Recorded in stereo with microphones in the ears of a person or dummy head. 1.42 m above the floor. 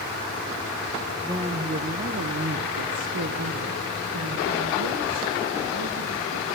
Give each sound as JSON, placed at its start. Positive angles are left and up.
{"t": 1.2, "sound": "a woman speaking", "side_deg": -15, "distance_m": 1.0}